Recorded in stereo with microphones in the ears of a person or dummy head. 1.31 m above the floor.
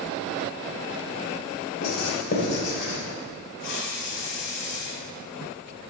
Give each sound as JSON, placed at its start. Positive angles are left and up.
{"t": 1.8, "sound": "writing", "side_deg": 60, "distance_m": 2.0}
{"t": 3.6, "sound": "a hiss", "side_deg": 75, "distance_m": 1.9}